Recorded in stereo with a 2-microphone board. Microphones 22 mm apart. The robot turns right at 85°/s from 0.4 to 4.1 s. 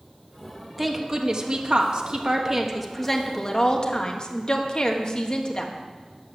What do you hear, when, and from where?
0.8 s a woman speaking: 175° right, 1.2 m; by 5.7 s 110° left, 1.2 m